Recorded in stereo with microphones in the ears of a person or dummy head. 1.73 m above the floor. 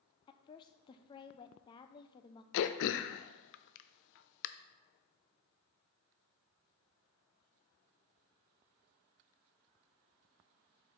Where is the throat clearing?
60° left (ahead or behind), 0.5 m.